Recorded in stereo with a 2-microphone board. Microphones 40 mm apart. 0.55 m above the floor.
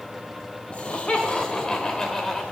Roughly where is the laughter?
Left.